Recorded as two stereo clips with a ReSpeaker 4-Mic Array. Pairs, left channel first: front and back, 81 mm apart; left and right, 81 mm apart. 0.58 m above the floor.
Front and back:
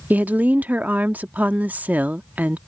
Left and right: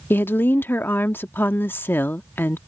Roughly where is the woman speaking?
Behind left.